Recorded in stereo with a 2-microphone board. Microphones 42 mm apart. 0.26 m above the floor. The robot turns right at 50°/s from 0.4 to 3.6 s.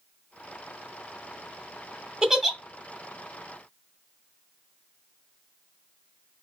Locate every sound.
2.2 s a giggle: 20° right (ahead or behind), 0.7 m; by 2.6 s 5° right (ahead or behind), 0.7 m